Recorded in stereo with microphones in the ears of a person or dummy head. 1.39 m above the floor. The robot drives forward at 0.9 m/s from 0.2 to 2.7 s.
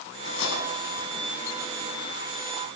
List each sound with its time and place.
0.2 s cutlery clinking: 80° left, 8.5 m; by 1.1 s 85° left, 8 m